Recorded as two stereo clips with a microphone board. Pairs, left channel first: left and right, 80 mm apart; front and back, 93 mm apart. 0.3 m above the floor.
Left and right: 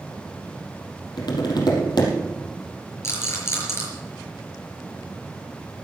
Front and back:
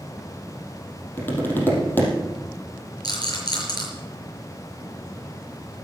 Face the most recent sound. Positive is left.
turn(degrees=35)